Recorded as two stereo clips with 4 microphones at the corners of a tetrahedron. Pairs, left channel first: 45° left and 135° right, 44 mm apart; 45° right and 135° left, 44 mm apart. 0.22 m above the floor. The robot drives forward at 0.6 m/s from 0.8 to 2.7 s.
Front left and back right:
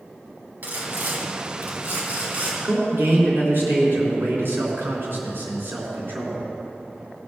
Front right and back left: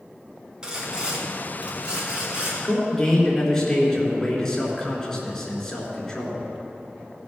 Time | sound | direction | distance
0.6 | sawing | 160° right | 2 m
2.6 | a man speaking | 120° right | 3.5 m